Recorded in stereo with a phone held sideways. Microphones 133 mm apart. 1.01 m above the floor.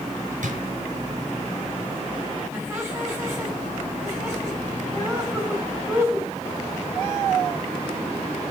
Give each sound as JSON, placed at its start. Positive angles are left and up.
{"t": 0.4, "sound": "a drawer", "side_deg": -70, "distance_m": 5.0}
{"t": 2.5, "sound": "laughter", "side_deg": -20, "distance_m": 9.0}